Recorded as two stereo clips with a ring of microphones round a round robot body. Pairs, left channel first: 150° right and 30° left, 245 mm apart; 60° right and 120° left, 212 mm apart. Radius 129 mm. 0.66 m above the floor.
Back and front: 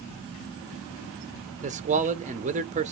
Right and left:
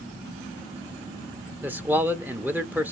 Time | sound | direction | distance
1.6 | a man speaking | 45° left | 0.6 m